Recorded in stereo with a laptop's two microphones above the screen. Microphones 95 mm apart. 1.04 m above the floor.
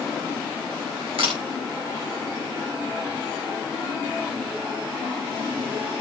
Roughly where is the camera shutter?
Right.